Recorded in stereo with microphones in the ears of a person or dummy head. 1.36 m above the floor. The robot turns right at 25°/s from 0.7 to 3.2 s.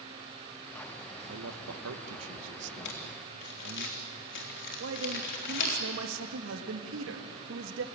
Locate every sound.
1.3 s a man speaking: 70° right (ahead or behind), 1.8 m; by 3.9 s 55° right (ahead or behind), 1.8 m
2.9 s crumpling: 65° left (ahead or behind), 3.5 m; by 5.8 s 55° left (ahead or behind), 3.5 m
4.8 s a man speaking: 75° right (ahead or behind), 2.0 m